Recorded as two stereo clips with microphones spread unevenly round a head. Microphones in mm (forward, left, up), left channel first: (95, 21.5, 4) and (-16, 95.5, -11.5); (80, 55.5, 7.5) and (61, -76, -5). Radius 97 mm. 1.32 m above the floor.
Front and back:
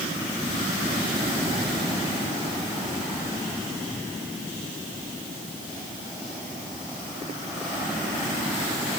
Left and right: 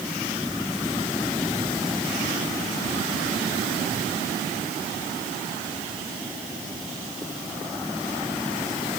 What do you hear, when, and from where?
Only background noise.